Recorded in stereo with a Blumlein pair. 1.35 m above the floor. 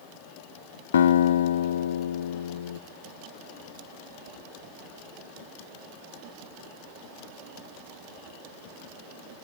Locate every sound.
0.9 s a guitar: 65° left, 0.8 m